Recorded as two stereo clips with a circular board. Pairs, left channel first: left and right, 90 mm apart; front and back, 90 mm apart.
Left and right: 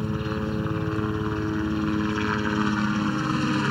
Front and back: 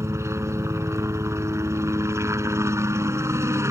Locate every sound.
0.0 s a helicopter: straight behind